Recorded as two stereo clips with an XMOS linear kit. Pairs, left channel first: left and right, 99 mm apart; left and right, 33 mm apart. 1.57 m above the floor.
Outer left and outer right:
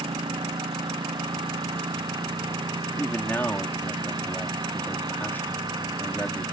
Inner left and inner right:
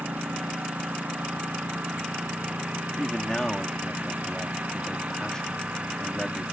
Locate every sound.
0.0 s a lawn mower: 50° right (ahead or behind); by 6.5 s 45° right (ahead or behind)
3.0 s a man speaking: 20° left (ahead or behind)